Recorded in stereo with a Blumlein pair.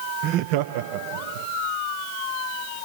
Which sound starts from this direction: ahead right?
Laughter, at 0.2 s.